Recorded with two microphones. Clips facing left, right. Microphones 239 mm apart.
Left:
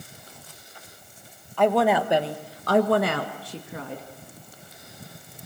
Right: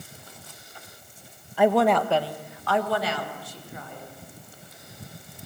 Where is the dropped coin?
I don't hear a dropped coin.